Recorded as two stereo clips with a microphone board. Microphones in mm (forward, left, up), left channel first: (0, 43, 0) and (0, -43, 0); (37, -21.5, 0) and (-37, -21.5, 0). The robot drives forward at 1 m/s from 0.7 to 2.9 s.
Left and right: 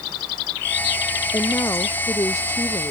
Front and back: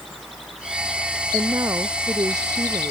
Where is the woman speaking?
135° left; by 2.9 s 145° left.